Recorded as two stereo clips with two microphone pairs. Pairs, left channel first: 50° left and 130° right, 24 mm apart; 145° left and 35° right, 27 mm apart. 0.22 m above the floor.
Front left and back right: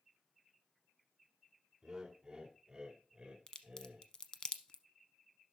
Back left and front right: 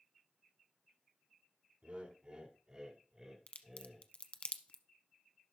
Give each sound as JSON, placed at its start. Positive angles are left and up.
{"t": 1.8, "sound": "laughter", "azimuth_deg": -65, "distance_m": 2.0}
{"t": 3.5, "sound": "a crack", "azimuth_deg": 110, "distance_m": 0.9}